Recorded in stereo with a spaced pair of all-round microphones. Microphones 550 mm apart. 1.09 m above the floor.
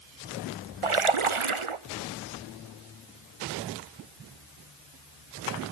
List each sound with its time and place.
0.8 s a splash: 60° right (ahead or behind), 0.8 m